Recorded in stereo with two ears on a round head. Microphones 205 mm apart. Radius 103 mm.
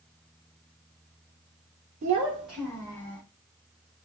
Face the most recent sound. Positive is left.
turn(degrees=25)  # may be behind; listen again after turning